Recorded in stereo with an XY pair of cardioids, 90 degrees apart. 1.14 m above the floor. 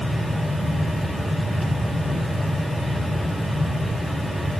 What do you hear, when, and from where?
0.0 s a fan: 5° left, 4 m